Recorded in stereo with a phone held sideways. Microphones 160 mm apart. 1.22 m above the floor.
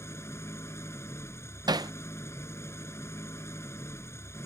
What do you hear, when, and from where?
0.0 s an engine running: 15° left (ahead or behind)
1.7 s hammering: 25° right (ahead or behind)